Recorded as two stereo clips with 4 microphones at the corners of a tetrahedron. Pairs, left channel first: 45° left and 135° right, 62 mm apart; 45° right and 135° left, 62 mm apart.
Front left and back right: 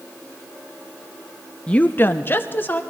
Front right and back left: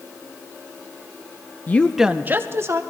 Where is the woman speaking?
15° right, 0.5 m; by 2.8 s 100° left, 1.1 m.